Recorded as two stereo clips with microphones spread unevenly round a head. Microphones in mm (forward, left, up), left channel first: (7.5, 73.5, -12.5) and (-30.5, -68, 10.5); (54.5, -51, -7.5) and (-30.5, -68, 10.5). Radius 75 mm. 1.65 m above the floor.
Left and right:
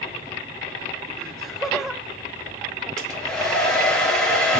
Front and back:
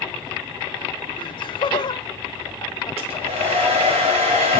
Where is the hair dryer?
160° left, 3 m.